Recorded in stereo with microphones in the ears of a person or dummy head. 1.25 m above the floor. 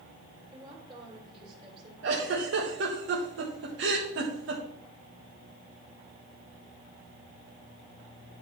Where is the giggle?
75° right (ahead or behind), 1.4 m.